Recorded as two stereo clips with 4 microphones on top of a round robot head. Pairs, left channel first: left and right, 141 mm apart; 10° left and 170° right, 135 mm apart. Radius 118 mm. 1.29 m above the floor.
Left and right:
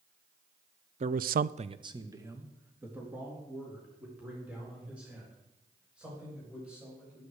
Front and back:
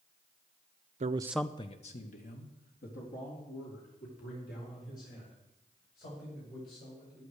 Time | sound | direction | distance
1.0 | a man speaking | 135° right | 0.6 m